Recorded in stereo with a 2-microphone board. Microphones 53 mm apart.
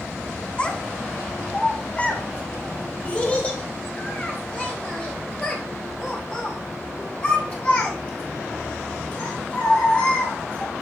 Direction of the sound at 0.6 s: 20° left (ahead or behind).